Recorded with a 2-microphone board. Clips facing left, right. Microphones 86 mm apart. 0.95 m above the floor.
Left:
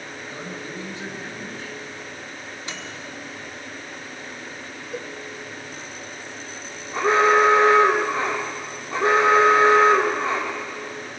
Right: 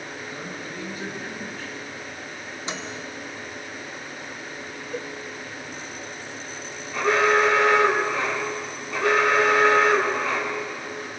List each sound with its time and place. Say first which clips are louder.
0.3 s a man speaking: left 1 dB; 25° left (ahead or behind), 8.5 m
2.7 s a microwave: right 5 dB; 20° right (ahead or behind), 1.7 m
4.9 s a cowbell: even; 5° left (ahead or behind), 0.7 m
6.9 s an alarm: left 3 dB; 30° left (ahead or behind), 3 m